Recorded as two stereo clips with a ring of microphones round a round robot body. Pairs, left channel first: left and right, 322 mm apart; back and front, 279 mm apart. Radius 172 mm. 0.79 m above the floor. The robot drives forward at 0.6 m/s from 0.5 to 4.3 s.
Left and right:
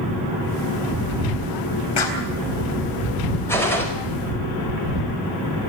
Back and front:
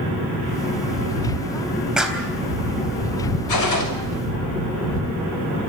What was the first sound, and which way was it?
A clap, 85° left.